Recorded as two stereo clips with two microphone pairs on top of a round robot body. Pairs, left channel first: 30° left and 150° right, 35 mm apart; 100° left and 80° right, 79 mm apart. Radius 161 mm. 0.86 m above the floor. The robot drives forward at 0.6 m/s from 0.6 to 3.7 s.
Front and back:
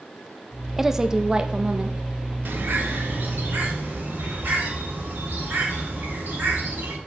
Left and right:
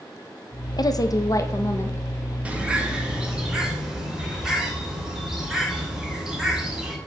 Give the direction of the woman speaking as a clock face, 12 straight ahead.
8 o'clock.